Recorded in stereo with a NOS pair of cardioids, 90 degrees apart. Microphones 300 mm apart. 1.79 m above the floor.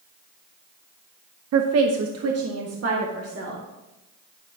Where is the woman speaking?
55° right, 0.8 m; by 3.6 s 50° right, 3 m.